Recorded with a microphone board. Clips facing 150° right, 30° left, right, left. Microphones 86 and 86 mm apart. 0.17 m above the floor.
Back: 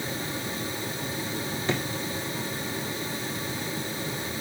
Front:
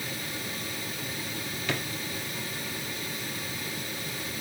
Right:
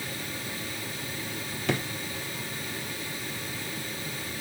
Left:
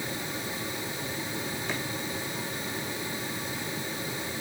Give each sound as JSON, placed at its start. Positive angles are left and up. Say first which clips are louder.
{"t": 1.7, "sound": "a drawer", "louder": "back 4 dB, right 8 dB", "azimuth_deg": -90, "distance_m": 1.9}